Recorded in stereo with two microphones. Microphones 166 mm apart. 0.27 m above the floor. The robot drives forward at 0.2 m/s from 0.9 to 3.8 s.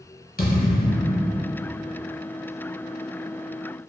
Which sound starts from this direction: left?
A thud, at 0.4 s.